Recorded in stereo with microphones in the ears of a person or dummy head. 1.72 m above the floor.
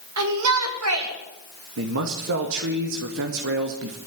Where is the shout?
80° right, 5.5 m.